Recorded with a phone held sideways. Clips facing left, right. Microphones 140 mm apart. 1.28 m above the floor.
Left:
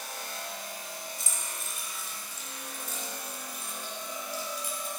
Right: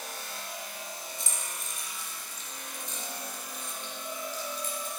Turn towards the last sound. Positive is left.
turn(degrees=10)  # may be behind; listen again after turning